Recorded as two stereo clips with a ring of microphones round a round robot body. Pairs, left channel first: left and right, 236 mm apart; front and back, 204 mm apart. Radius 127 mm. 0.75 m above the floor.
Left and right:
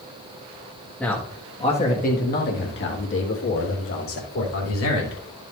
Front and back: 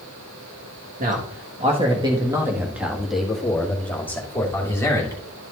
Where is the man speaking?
170° left, 1.3 m; by 5.2 s 75° left, 3 m.